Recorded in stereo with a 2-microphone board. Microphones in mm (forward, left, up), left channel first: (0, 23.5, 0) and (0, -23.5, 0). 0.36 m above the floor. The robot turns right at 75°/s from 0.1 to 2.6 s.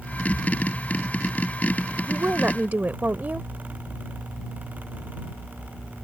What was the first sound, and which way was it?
A woman speaking, 110° right.